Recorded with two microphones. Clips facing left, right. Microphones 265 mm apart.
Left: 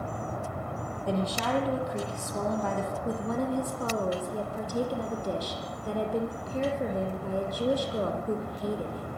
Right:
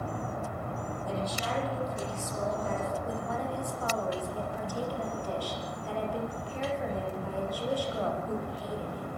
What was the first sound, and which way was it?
A woman speaking, 75° left (ahead or behind).